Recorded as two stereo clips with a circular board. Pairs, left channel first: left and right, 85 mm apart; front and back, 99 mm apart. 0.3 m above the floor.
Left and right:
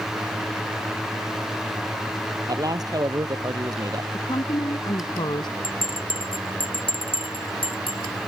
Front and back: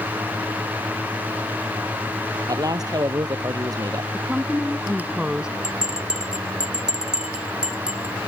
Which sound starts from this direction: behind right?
A man speaking, at 2.5 s.